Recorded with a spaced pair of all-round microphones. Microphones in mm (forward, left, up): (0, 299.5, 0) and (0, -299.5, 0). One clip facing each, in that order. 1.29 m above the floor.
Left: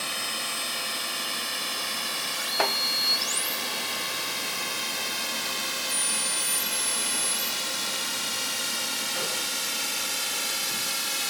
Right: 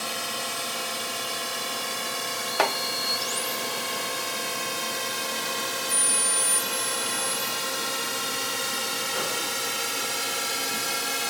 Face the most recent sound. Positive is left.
turn(degrees=-70)  # may be behind; listen again after turning